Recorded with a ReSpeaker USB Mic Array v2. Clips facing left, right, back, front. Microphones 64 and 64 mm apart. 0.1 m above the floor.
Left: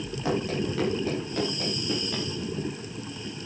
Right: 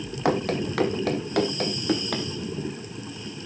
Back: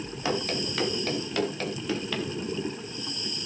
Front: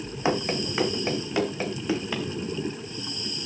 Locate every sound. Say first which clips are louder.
0.2 s running footsteps: right 4 dB, front 4 dB; 65° right, 2.5 m; by 2.2 s 75° right, 4 m